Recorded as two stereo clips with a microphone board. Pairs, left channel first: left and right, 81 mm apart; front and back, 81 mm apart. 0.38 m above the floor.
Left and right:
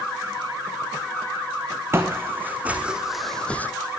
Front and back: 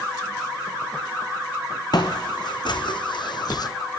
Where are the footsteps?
30° right, 1.6 m; by 3.7 s 25° left, 0.8 m.